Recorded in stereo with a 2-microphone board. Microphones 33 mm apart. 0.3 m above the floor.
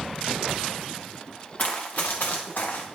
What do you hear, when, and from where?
1.6 s running footsteps: 45° left (ahead or behind), 1.4 m; by 2.9 s 80° left, 2.5 m